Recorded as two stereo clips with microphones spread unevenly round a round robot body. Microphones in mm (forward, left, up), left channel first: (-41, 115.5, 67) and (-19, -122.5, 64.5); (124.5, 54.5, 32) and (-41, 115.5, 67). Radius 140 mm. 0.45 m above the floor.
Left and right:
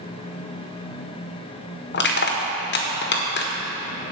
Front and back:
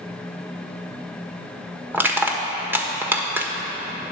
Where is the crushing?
75° left, 1.4 m.